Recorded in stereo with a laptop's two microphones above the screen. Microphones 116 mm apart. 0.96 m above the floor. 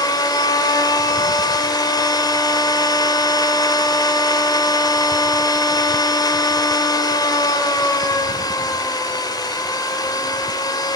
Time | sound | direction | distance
0.0 | a machine running | 35° left (ahead or behind) | 1.8 m